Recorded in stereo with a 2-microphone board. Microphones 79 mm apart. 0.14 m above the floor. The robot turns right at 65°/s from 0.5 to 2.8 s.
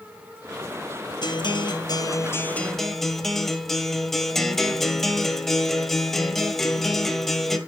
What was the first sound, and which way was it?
A guitar, 75° left.